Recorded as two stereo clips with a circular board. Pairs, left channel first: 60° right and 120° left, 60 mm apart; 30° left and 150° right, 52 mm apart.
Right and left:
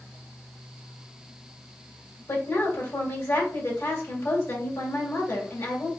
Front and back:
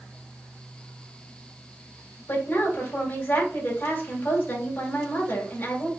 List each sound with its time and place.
2.3 s a woman speaking: 15° right, 1.9 m